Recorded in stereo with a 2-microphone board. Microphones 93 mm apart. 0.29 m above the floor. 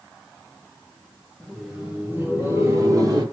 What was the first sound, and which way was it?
Laughter, centre (ahead or behind).